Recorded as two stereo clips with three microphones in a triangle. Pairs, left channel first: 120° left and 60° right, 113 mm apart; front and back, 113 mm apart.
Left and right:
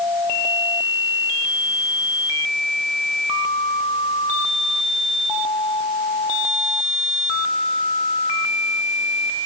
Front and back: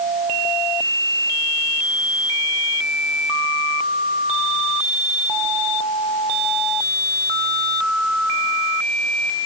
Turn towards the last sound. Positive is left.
No sound to turn to.